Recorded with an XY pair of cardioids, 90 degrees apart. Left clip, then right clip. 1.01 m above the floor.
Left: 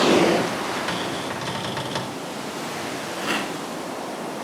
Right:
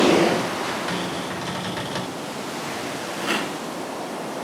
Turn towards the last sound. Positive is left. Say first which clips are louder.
# right 1 dB
turn(degrees=0)